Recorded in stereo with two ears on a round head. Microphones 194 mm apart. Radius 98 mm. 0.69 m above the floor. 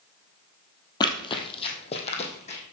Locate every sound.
1.0 s running footsteps: 20° left (ahead or behind), 1.3 m; by 2.6 s 35° left (ahead or behind), 2.5 m